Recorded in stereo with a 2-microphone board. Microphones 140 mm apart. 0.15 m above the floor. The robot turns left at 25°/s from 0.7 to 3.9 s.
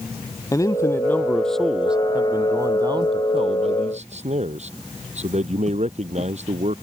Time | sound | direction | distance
0.5 | a man speaking | 25° left | ?